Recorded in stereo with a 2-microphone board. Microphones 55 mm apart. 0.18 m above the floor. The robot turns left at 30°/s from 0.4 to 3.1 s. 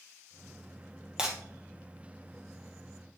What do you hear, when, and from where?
1.2 s breaking glass: 15° right (ahead or behind), 2 m; by 1.4 s 10° right (ahead or behind), 2 m